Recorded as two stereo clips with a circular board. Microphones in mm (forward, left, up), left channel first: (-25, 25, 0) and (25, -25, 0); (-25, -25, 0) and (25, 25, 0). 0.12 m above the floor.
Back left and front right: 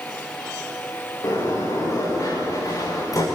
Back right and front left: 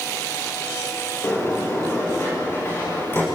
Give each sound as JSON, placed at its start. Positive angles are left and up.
{"t": 1.2, "sound": "a sliding door", "azimuth_deg": 170, "distance_m": 9.5}